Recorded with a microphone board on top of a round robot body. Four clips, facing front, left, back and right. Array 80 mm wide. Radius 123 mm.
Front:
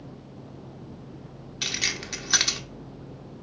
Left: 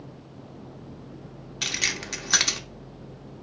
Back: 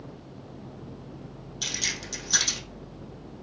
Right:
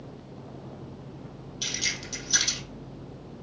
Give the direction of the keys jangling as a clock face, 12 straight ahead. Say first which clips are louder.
Left 4 dB, front 3 dB; 10 o'clock.